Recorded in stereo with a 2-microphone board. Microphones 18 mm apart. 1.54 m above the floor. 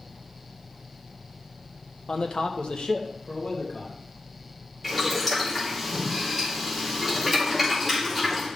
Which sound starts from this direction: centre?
Boiling, at 4.8 s.